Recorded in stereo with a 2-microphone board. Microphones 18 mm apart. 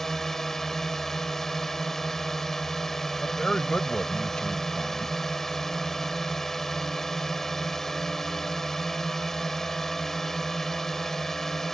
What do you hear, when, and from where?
0.0 s a drone: 20° left (ahead or behind)
3.2 s a man speaking: 70° left (ahead or behind)